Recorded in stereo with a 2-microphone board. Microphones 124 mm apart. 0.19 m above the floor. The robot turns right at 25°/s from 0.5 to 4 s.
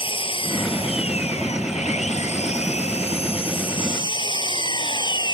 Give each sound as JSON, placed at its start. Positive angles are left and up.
{"t": 0.0, "sound": "an engine running", "azimuth_deg": 50}